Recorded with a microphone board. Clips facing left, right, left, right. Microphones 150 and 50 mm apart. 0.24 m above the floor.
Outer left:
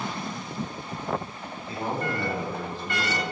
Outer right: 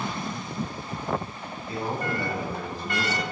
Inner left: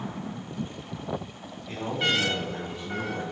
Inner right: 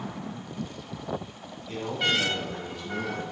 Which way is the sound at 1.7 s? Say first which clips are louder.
Even, even; 30° left (ahead or behind).